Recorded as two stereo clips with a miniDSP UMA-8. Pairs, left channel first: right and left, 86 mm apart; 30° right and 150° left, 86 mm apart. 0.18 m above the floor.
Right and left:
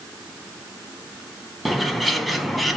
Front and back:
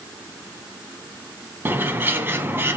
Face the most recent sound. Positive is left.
turn(degrees=180)